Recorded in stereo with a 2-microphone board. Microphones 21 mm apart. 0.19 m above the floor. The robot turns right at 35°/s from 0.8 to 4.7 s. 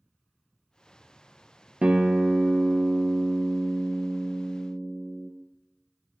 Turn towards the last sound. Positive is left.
turn(degrees=5)